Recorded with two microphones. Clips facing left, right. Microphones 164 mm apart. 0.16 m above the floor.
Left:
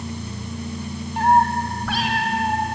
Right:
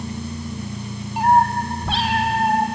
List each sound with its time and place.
1.2 s a cat meowing: 5° right (ahead or behind), 2.5 m; by 2.6 s 35° right (ahead or behind), 3.5 m